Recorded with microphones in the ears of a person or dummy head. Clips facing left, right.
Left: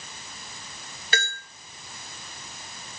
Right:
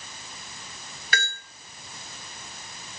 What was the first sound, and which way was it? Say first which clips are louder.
A bell: left 1 dB; 20° left (ahead or behind).